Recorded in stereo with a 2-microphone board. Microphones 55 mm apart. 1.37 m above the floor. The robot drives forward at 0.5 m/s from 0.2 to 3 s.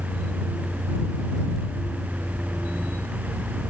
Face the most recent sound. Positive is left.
No sound to turn to.